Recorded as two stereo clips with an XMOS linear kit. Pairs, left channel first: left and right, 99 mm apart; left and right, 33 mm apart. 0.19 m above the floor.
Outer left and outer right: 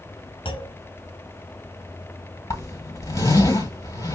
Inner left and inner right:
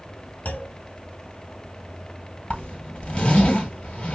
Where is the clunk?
55° left (ahead or behind), 1.0 m.